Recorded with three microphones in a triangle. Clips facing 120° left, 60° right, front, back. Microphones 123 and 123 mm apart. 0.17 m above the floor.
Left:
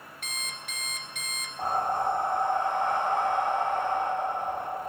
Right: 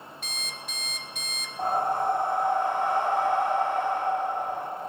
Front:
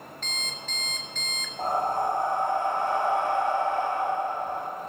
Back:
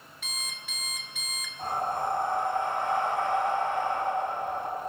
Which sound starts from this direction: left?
An alarm clock, at 0.2 s.